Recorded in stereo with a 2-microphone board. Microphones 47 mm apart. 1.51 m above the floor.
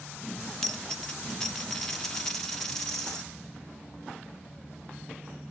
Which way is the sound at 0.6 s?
10° left (ahead or behind).